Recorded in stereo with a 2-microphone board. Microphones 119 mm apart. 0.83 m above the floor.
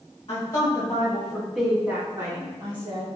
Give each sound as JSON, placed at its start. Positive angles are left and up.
{"t": 0.3, "sound": "a woman speaking", "side_deg": 40, "distance_m": 1.2}